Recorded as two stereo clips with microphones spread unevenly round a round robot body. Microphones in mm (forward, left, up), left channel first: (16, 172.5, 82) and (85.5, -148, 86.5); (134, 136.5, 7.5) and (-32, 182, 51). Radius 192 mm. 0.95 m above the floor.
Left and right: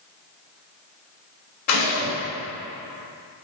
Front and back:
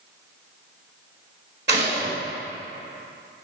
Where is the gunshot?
145° left, 3 m.